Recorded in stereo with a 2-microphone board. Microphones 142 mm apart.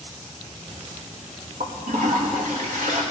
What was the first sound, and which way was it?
A toilet flushing, 70° right (ahead or behind).